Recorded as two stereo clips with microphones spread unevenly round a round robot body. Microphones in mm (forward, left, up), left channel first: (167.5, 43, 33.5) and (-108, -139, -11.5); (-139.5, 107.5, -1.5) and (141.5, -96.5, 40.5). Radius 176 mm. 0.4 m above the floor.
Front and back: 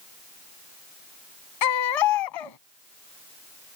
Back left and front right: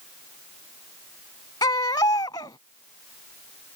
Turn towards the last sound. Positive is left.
turn(degrees=65)